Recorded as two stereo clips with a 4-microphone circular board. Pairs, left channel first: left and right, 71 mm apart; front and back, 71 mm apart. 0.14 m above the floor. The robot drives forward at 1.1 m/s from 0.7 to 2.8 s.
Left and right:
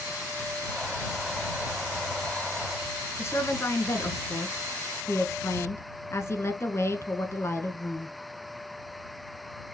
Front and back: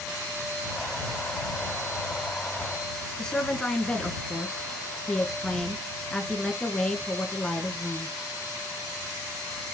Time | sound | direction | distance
3.2 | a woman speaking | 75° left | 1.3 m